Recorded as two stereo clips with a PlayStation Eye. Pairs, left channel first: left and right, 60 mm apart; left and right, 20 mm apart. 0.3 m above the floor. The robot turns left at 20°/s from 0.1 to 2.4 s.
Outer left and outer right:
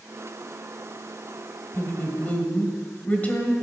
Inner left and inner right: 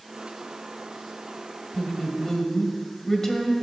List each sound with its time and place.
1.7 s a woman speaking: 30° left (ahead or behind), 1.6 m; by 3.5 s 25° left (ahead or behind), 1.6 m